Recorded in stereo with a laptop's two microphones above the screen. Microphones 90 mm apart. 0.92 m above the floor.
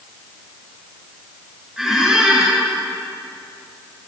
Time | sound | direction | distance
1.8 | a squeak | 5° right (ahead or behind) | 9.5 m